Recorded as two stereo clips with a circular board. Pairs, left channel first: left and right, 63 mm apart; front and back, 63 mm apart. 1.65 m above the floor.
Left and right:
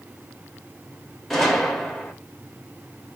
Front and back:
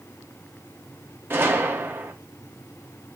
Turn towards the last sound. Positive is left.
turn(degrees=170)